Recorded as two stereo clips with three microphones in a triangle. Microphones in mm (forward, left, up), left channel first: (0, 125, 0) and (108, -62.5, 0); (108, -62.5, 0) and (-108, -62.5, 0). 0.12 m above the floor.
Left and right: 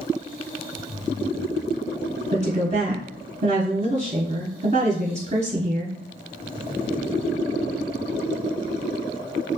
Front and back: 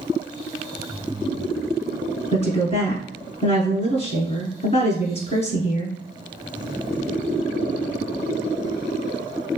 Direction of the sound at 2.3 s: 35° right.